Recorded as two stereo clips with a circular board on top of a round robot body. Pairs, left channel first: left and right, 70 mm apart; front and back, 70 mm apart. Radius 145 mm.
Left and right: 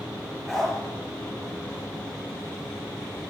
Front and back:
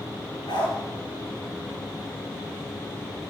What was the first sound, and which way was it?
A dog barking, 5° right.